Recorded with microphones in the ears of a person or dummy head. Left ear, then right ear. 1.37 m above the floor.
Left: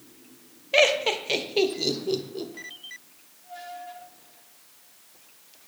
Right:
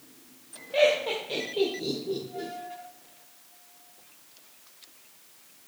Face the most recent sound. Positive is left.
turn(degrees=70)  # may be behind; listen again after turning